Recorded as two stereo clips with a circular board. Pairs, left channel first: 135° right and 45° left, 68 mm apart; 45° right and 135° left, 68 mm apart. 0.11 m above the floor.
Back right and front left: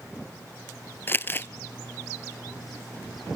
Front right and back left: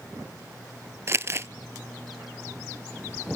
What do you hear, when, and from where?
1.1 s crumpling: 175° left, 0.5 m